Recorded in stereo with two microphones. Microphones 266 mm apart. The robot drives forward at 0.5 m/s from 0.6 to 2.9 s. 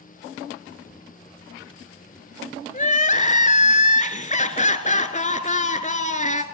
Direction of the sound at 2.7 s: 30° left (ahead or behind).